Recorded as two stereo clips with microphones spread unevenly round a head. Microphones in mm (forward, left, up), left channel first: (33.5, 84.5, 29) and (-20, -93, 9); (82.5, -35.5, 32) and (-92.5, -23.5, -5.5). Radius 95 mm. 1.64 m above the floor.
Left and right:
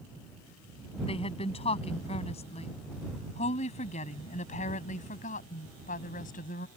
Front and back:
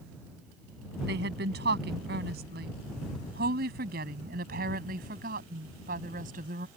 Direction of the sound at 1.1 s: 135° left.